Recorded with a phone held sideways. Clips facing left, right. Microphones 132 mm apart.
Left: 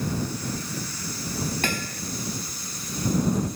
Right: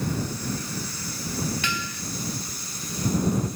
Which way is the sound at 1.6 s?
50° left (ahead or behind).